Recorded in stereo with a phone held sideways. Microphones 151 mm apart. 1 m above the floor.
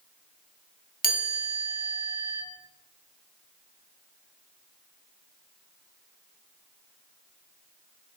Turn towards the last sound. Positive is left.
turn(degrees=70)  # may be behind; listen again after turning